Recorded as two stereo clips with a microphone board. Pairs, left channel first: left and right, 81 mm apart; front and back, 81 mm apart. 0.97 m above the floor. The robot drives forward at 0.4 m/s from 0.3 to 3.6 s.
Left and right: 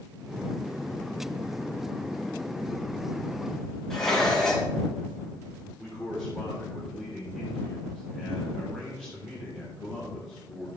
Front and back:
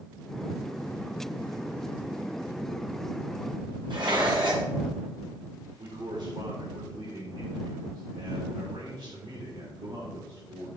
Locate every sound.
3.9 s dishes clattering: 175° left, 4.5 m
5.8 s a man speaking: 175° right, 3.5 m